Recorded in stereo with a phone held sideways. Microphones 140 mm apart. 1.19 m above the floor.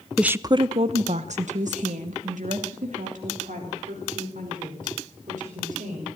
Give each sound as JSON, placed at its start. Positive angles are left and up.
{"t": 0.2, "sound": "a woman speaking", "side_deg": 0, "distance_m": 0.5}